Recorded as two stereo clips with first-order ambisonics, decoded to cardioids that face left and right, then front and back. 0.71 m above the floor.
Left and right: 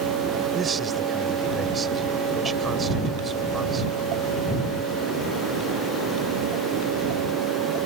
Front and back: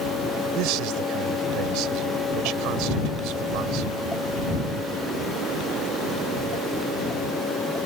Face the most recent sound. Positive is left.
turn(degrees=-160)